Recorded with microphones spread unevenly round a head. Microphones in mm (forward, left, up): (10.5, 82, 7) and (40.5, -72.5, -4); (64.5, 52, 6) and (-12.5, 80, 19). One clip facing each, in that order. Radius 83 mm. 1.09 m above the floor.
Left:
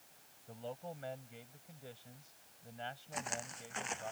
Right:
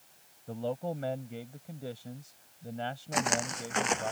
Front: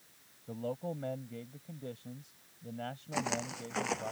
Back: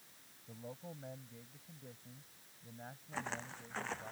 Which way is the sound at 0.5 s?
55° right.